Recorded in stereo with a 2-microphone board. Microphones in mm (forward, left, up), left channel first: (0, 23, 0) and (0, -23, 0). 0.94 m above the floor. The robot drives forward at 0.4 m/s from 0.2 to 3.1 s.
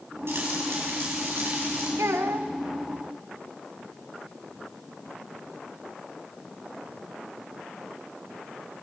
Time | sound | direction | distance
0.3 | frying | 65° right (ahead or behind) | 7 m
2.0 | a child speaking | 85° right | 1.0 m